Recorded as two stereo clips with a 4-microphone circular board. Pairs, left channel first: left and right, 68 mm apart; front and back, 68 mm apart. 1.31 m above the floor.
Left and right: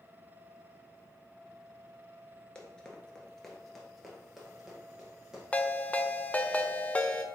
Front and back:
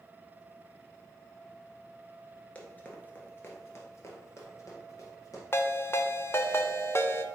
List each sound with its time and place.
2.5 s running footsteps: 35° left, 1.3 m; by 5.4 s 10° right, 2 m
5.5 s a ringtone: 30° left, 0.6 m